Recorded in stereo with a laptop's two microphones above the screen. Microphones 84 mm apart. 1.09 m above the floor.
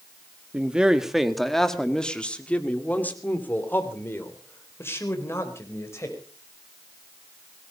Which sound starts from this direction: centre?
A man speaking, at 0.5 s.